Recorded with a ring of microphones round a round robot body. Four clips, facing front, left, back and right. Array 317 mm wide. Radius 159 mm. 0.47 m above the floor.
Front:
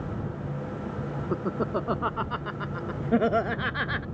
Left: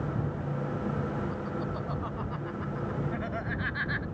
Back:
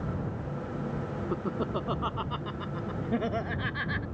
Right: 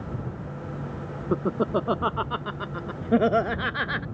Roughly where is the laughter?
Right.